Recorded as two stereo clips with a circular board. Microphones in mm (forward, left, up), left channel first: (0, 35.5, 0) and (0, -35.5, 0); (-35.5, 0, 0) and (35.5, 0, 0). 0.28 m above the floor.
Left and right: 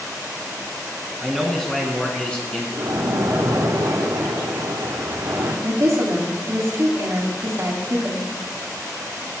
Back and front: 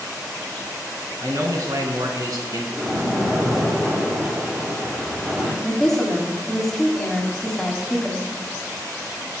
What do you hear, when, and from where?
1.2 s a man speaking: straight ahead, 2.5 m; by 2.6 s 20° left, 3 m
2.7 s a splash: 80° right, 3 m
5.6 s a woman speaking: 95° right, 1.9 m